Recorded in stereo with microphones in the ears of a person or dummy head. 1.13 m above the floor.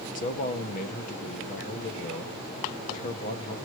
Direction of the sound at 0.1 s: 45° left (ahead or behind).